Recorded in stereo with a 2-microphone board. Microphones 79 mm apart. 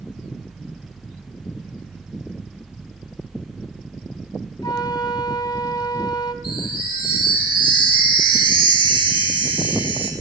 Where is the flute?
60° left (ahead or behind), 1.2 m.